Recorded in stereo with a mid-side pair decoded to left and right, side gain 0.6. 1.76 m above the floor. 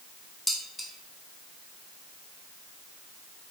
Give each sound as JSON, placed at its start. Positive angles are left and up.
{"t": 0.5, "sound": "dishes clattering", "azimuth_deg": 5, "distance_m": 3.0}